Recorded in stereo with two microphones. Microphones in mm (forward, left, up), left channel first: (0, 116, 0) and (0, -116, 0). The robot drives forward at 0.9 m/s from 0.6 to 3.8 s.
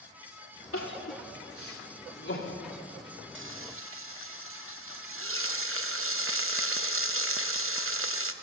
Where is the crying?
70° left (ahead or behind), 3 m; by 2.6 s 60° left (ahead or behind), 3 m.